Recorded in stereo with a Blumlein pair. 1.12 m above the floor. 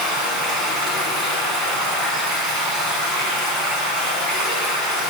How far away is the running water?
About 7.5 m.